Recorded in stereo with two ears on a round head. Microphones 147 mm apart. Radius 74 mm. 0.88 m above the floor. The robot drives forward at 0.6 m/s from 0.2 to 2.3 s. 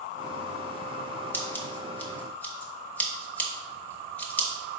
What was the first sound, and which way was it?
Scissors, 15° left (ahead or behind).